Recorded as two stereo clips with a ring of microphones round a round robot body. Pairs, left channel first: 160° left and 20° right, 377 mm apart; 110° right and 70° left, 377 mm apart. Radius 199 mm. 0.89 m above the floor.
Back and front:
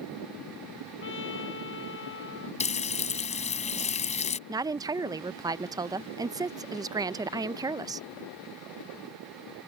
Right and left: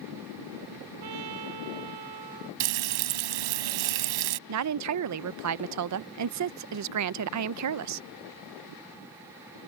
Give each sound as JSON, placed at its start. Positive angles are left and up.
{"t": 1.0, "sound": "a trumpet", "azimuth_deg": 95}
{"t": 2.6, "sound": "frying", "azimuth_deg": 85}
{"t": 4.5, "sound": "a woman speaking", "azimuth_deg": 55}